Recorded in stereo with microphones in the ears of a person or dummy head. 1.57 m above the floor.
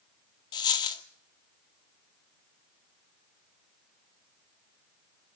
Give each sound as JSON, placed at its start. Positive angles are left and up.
{"t": 0.5, "sound": "a dropped coin", "side_deg": 20, "distance_m": 1.6}